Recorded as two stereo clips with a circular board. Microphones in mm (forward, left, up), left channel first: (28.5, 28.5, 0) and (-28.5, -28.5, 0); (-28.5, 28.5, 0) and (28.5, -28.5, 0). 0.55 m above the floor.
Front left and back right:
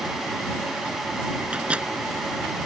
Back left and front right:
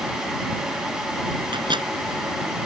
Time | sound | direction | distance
1.5 | a microwave | 60° right | ?